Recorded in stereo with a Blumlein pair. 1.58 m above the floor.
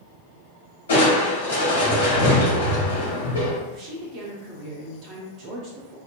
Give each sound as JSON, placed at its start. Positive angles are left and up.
{"t": 0.9, "sound": "crushing", "azimuth_deg": 70, "distance_m": 1.4}
{"t": 3.7, "sound": "a woman speaking", "azimuth_deg": -40, "distance_m": 1.1}